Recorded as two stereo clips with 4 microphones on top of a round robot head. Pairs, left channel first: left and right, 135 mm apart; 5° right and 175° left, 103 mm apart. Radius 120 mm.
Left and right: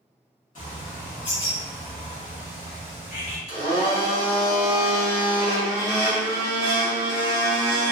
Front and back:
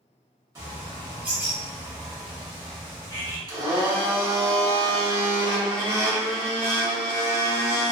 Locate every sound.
0.6 s a bird: 120° left, 1.6 m
3.5 s a blender: 135° left, 1.7 m